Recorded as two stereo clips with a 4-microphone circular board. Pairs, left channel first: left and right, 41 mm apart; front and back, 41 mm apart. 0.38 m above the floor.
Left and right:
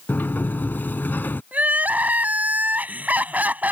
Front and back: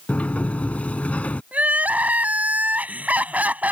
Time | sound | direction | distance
0.1 | a sliding door | 55° left | ?
1.5 | crying | 135° right | ?